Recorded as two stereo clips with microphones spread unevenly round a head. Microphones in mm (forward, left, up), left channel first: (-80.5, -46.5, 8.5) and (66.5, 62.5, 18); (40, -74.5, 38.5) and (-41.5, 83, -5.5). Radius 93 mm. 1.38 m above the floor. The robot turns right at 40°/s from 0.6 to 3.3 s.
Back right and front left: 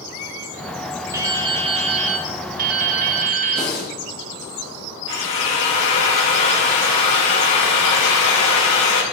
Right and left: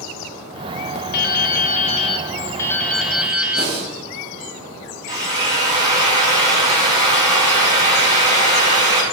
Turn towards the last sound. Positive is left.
turn(degrees=-170)